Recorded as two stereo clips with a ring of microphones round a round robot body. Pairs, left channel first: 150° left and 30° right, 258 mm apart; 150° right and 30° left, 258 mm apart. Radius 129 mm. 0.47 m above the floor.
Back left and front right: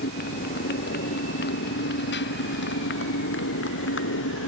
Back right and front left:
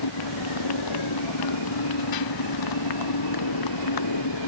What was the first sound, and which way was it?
A motorcycle, 150° right.